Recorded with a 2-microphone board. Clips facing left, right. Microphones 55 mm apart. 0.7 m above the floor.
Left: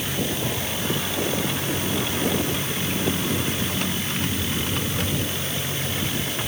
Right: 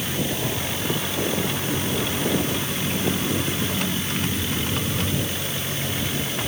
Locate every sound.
Only background noise.